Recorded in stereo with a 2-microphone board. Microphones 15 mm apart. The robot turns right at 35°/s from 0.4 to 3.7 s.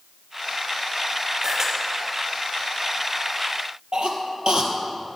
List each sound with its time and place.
1.4 s a camera shutter: 30° right (ahead or behind), 3 m; by 1.7 s 40° right (ahead or behind), 3 m
3.9 s a cough: 60° right (ahead or behind), 2.5 m